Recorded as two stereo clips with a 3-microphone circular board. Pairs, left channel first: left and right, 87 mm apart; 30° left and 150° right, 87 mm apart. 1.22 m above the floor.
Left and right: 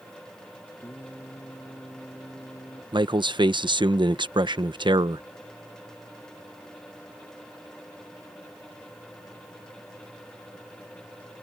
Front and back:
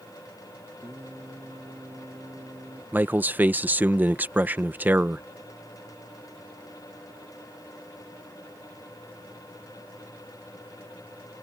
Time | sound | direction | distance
0.8 | singing | 155° left | ?
2.9 | a man speaking | 80° right | ?